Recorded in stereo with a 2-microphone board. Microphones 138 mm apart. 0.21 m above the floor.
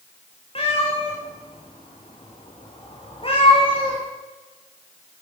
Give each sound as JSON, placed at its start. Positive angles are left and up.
{"t": 0.6, "sound": "a cat meowing", "side_deg": 45, "distance_m": 4.5}